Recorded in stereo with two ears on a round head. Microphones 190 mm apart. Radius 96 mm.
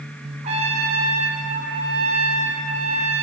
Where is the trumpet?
25° right (ahead or behind), 1.2 m.